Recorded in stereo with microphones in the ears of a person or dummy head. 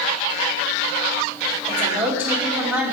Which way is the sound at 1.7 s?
15° right (ahead or behind).